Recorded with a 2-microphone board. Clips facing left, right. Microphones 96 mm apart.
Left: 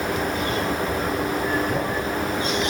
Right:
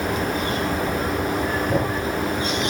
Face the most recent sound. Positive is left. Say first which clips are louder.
# right 2 dB
turn(degrees=-50)  # may be behind; listen again after turning